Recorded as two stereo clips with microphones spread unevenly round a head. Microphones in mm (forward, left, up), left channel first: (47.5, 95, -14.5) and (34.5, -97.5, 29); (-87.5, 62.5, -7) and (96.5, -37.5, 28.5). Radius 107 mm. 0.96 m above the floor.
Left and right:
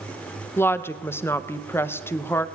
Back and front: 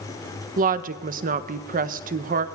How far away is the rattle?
No rattle in this recording.